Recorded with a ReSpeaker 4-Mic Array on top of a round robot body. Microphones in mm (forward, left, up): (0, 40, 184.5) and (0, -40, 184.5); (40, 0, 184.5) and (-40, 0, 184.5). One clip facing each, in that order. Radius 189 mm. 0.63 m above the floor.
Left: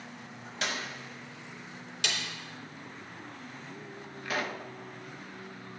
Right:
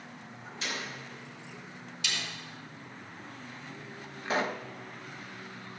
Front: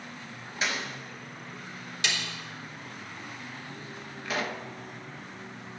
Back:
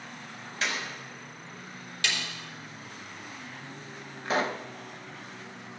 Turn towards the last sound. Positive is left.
turn(degrees=-140)